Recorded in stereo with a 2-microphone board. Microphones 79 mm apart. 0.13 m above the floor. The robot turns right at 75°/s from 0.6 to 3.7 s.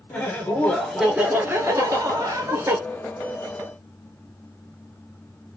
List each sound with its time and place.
0.1 s laughter: 155° left, 1.7 m; by 2.8 s 40° right, 1.7 m